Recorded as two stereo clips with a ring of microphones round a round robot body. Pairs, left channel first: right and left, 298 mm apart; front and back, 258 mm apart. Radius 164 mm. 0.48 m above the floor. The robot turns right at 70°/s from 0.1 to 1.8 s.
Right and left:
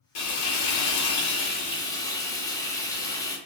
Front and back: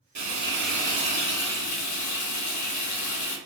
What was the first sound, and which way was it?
Frying, 125° right.